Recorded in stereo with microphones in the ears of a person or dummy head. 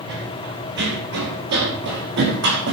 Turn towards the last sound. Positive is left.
turn(degrees=-65)  # may be behind; listen again after turning